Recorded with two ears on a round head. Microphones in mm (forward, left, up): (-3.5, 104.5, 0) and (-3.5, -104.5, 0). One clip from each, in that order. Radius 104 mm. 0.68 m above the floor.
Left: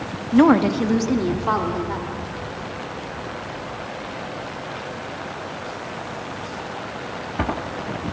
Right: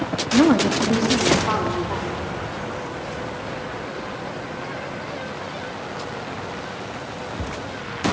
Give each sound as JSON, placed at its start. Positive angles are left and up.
{"t": 0.3, "sound": "a woman speaking", "side_deg": 30, "distance_m": 1.1}